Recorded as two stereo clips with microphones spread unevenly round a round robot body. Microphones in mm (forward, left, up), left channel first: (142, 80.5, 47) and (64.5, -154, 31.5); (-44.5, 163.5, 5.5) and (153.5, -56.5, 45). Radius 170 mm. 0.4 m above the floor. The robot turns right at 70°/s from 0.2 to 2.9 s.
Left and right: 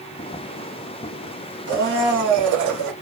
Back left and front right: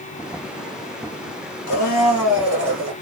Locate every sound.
1.7 s a blender: straight behind, 1.2 m; by 2.9 s 95° right, 1.2 m